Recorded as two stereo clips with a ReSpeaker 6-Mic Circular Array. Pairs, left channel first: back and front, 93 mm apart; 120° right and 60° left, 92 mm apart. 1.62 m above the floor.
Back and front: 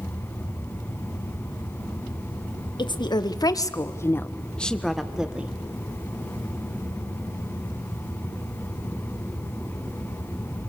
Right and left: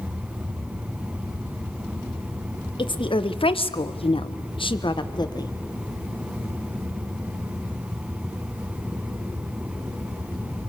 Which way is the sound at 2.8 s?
145° right.